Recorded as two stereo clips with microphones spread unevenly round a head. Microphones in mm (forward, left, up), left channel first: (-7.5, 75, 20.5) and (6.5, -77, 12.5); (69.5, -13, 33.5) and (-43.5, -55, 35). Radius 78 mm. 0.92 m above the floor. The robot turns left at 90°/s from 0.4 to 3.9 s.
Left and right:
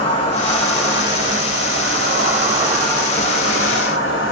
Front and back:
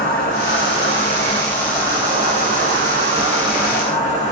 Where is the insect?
40° left, 1.3 m; by 4.3 s 85° left, 1.3 m.